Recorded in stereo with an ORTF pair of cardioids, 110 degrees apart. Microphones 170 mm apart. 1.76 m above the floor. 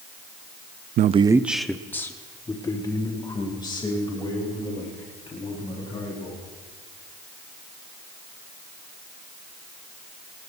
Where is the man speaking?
55° right, 0.5 m; by 6.5 s 30° left, 6 m.